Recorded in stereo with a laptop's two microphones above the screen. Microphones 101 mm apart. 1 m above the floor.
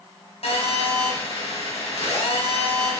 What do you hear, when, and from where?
0.4 s a phone buzzing: 85° left, 3.5 m